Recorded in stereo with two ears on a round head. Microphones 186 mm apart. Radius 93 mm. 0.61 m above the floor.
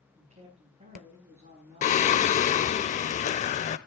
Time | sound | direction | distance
0.1 | a man speaking | 30° right (ahead or behind) | 6.5 m
1.8 | singing | 35° left (ahead or behind) | 0.7 m